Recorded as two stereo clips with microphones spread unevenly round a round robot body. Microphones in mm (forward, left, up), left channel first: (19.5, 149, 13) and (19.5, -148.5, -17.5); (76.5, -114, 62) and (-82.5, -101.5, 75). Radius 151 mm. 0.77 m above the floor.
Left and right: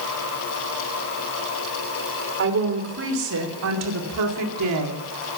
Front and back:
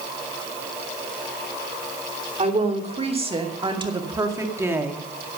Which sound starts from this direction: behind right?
A woman speaking, at 2.4 s.